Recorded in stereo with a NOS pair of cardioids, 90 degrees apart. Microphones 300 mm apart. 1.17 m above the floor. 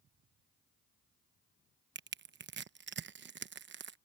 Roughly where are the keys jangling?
No keys jangling in this recording.